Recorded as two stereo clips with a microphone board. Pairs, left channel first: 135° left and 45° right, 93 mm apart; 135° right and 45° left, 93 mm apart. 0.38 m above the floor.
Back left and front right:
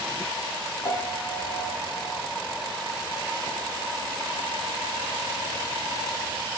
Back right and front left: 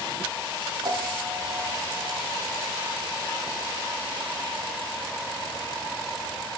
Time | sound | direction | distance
0.8 | a piano | 105° left | 4.5 m